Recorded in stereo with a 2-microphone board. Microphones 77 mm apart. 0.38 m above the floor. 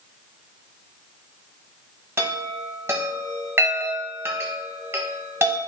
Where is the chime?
35° right (ahead or behind), 0.9 m.